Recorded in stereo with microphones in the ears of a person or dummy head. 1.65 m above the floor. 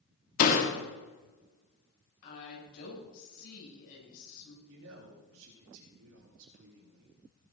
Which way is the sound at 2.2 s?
55° left (ahead or behind).